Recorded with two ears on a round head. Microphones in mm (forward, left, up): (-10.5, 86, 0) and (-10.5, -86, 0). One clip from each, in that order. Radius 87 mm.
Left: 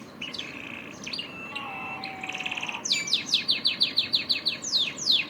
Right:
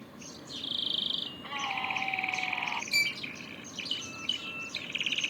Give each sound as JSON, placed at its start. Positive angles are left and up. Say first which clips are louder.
{"t": 1.2, "sound": "a scream", "louder": "even", "side_deg": -80}
{"t": 2.9, "sound": "a violin", "louder": "left 2 dB", "side_deg": -30}